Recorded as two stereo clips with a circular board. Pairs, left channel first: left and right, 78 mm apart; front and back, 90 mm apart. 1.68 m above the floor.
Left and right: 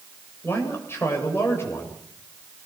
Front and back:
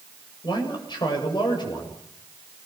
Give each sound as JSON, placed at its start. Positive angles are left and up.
{"t": 0.4, "sound": "a man speaking", "azimuth_deg": 35, "distance_m": 7.5}